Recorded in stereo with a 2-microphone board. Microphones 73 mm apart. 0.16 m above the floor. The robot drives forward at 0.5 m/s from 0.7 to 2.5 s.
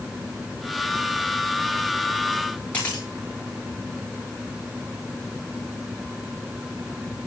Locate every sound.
2.7 s a camera shutter: 20° left (ahead or behind), 8 m